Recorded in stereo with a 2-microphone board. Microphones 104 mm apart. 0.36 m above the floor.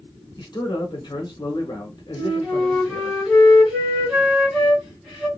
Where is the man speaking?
45° left (ahead or behind), 1.1 m.